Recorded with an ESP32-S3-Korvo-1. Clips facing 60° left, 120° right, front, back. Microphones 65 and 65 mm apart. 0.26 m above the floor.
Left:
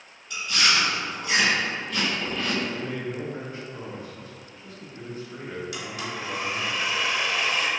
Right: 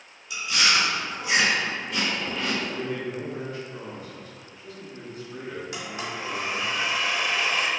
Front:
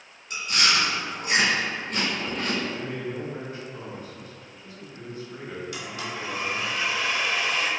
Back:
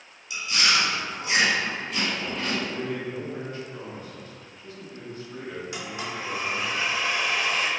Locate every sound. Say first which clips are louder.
0.3 s chewing: even, even; 40° right, 1.1 m
2.7 s a man speaking: right 1 dB, back 1 dB; 45° left, 1.2 m
5.7 s a blender: even, back 1 dB; 140° right, 1.1 m